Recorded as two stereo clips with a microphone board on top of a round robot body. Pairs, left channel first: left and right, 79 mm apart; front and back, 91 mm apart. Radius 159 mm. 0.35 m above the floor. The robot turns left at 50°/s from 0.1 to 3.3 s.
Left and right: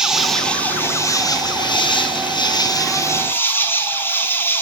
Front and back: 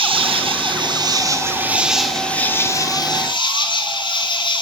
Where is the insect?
170° right, 2.5 m; by 4.6 s 30° left, 2.5 m.